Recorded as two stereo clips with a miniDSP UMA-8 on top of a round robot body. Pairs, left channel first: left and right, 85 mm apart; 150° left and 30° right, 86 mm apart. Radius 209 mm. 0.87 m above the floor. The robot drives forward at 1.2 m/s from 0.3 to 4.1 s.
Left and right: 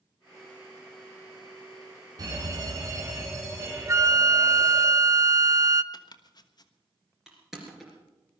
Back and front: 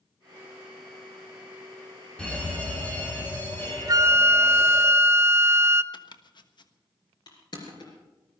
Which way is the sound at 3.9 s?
50° right.